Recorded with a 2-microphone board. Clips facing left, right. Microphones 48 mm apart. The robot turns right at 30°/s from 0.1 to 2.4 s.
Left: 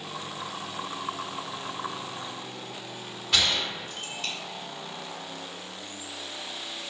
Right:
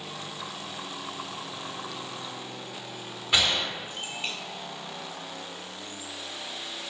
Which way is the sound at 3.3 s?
15° right (ahead or behind).